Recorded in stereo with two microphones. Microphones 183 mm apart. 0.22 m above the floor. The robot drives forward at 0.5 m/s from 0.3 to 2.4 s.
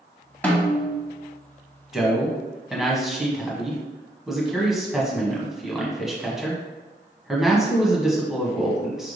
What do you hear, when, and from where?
0.4 s a snare drum: 10° left (ahead or behind), 1.1 m
1.9 s a man speaking: centre (ahead or behind), 1.2 m